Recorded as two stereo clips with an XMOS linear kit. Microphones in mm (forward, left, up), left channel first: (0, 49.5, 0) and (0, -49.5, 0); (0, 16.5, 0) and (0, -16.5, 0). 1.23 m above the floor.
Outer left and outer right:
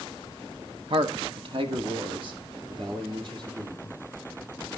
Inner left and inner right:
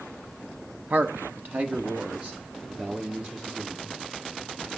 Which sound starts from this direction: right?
A man speaking, at 0.9 s.